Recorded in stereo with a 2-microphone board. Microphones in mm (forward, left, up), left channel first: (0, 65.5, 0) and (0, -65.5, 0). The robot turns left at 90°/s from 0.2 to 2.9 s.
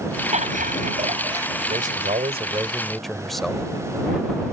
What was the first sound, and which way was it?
Laughter, 60° right.